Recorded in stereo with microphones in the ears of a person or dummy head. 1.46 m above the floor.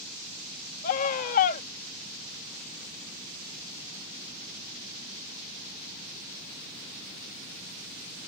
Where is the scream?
50° left (ahead or behind).